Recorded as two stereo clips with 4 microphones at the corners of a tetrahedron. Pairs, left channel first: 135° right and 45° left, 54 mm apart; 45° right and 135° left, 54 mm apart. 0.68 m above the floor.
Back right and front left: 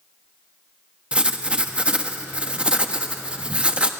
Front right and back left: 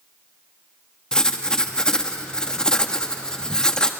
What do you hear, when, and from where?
1.1 s writing: 10° left, 1.2 m